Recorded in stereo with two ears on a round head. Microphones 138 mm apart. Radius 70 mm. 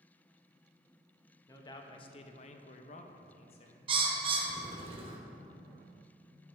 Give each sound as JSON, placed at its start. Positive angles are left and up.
{"t": 1.5, "sound": "a man speaking", "side_deg": 25, "distance_m": 0.8}
{"t": 3.9, "sound": "a bird", "side_deg": -35, "distance_m": 0.8}